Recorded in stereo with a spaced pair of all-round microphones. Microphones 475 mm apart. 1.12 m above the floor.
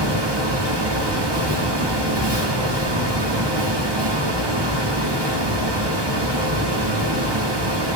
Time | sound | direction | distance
0.0 | a fan | 60° right (ahead or behind) | 1.4 m